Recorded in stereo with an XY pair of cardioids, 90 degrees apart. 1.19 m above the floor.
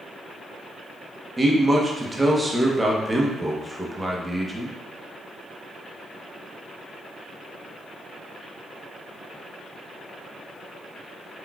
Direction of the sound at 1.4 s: 15° right.